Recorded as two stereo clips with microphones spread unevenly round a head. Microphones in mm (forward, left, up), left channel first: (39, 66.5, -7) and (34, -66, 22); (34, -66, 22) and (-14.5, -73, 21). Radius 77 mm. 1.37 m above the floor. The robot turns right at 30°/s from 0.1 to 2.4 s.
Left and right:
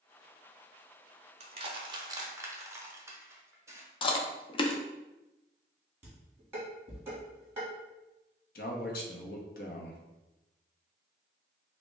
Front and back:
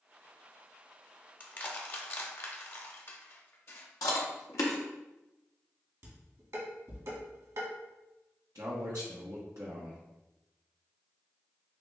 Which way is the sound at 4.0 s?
35° left.